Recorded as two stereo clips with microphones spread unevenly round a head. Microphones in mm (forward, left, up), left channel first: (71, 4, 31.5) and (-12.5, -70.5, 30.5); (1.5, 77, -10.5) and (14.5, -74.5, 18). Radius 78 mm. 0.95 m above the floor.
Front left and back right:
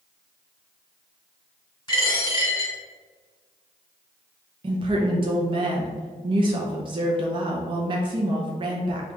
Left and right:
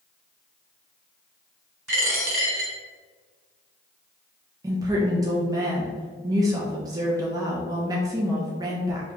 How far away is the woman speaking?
About 0.6 m.